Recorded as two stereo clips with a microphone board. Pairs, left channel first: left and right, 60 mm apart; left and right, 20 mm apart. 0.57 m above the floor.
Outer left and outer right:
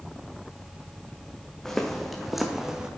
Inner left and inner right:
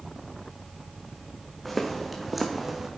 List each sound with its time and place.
1.6 s footsteps: 10° left (ahead or behind), 1.9 m; by 2.9 s 10° right (ahead or behind), 1.6 m